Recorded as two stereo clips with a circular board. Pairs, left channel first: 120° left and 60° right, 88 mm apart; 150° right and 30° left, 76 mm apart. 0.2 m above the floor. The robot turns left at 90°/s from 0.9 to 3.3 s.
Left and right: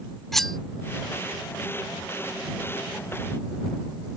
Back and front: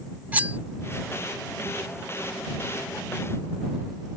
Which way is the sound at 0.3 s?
40° left.